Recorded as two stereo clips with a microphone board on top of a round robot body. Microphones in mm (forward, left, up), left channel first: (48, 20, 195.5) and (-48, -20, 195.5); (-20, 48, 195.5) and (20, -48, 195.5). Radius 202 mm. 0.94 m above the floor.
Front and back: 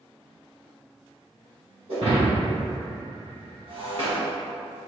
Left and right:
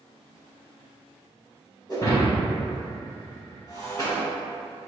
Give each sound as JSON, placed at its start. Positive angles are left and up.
{"t": 1.9, "sound": "breaking glass", "azimuth_deg": 175, "distance_m": 1.5}